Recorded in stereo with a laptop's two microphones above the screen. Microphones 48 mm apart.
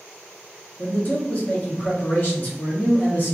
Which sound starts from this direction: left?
A man speaking, at 0.8 s.